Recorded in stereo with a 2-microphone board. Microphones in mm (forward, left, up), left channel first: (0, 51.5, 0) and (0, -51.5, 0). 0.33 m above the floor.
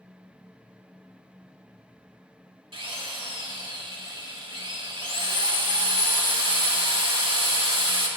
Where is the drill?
60° right (ahead or behind), 1.2 m.